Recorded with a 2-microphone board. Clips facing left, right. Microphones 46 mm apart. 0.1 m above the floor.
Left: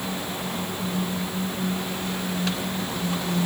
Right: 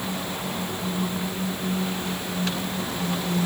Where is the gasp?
I don't hear a gasp.